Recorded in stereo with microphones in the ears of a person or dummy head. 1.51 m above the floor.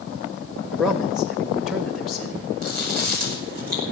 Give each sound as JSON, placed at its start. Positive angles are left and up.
{"t": 0.7, "sound": "a man speaking", "side_deg": 0, "distance_m": 1.2}
{"t": 2.6, "sound": "chewing", "side_deg": -40, "distance_m": 5.0}